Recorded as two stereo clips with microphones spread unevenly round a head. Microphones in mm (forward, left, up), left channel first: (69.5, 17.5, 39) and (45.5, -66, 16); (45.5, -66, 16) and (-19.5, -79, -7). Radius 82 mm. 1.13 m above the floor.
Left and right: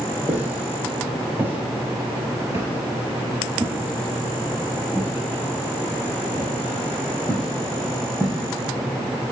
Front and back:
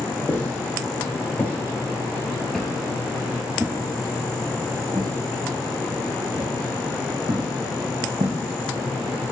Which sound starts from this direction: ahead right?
Footsteps, at 0.3 s.